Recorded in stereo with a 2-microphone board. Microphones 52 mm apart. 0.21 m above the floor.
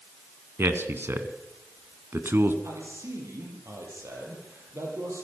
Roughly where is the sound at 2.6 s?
Right.